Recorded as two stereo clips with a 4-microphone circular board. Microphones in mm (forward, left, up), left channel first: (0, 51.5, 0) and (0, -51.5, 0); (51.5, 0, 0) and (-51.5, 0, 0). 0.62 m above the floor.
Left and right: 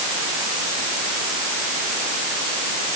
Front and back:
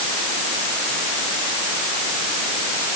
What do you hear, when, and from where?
Only background noise.